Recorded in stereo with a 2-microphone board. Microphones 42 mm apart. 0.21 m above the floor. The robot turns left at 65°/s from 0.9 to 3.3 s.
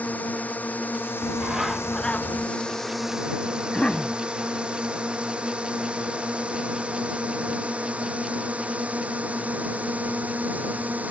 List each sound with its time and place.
0.0 s a drone: 35° left (ahead or behind); by 11.1 s 35° right (ahead or behind)
1.2 s a bird: 145° right; by 2.5 s 135° left
3.6 s a cough: 20° left (ahead or behind)